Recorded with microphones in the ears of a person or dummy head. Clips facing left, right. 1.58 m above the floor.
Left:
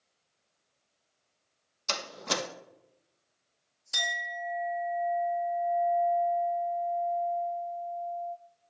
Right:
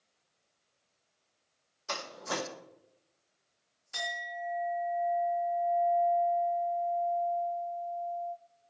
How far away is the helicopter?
No helicopter in this recording.